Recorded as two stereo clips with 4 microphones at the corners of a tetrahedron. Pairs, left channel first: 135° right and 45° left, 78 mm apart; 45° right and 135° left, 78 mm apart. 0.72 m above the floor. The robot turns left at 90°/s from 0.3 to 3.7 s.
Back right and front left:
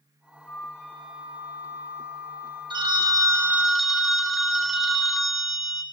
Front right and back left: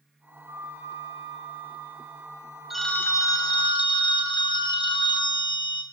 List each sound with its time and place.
0.5 s a flute: 175° right, 4.5 m; by 3.7 s 105° right, 4.5 m
2.7 s a phone ringing: 50° left, 0.8 m; by 5.8 s 40° right, 0.8 m